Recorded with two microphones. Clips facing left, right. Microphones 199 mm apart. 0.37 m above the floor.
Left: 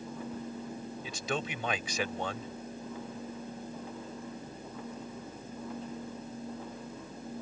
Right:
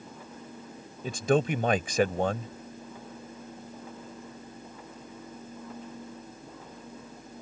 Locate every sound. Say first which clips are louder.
1.0 s a man speaking: right 12 dB; 50° right (ahead or behind)